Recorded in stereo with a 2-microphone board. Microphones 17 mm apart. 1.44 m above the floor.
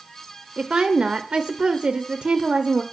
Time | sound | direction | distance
0.6 | a woman speaking | 70° right (ahead or behind) | 0.6 m